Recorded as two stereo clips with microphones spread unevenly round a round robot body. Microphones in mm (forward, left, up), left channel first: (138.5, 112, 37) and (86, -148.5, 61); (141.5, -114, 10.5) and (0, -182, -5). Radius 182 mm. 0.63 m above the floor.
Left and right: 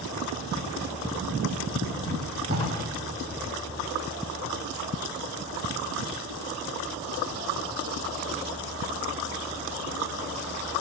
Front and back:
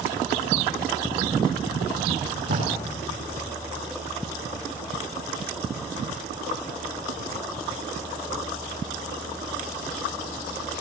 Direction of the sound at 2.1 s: 165° right.